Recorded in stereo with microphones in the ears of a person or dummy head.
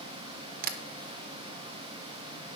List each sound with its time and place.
0.6 s tapping: 55° right (ahead or behind), 1.1 m